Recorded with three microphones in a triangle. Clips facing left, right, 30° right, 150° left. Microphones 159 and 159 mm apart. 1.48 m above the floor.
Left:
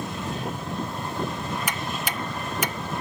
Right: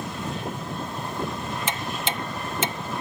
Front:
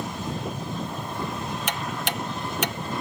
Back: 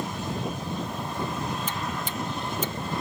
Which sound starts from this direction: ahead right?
Ticking, at 1.7 s.